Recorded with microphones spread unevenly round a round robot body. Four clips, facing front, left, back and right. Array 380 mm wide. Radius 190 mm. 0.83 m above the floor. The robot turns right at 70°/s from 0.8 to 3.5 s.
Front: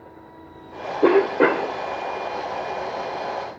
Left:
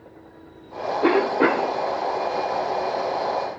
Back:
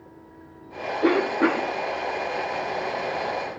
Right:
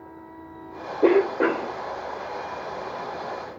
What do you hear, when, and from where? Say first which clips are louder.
1.0 s a cough: even, front 5 dB; 10° right, 2.5 m; by 1.8 s 40° left, 2.5 m